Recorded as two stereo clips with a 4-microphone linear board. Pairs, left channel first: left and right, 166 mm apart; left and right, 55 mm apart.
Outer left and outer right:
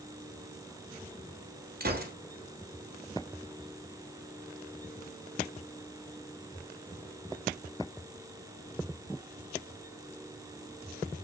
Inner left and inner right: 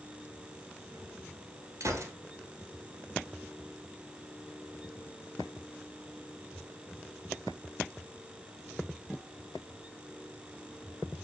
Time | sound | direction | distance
1.8 | a gunshot | 70° right (ahead or behind) | 0.9 m